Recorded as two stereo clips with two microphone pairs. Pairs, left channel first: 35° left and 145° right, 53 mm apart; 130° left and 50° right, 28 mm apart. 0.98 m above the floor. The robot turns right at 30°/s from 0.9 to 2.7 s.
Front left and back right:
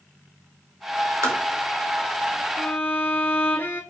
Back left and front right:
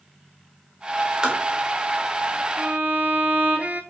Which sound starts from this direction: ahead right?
A violin, at 2.6 s.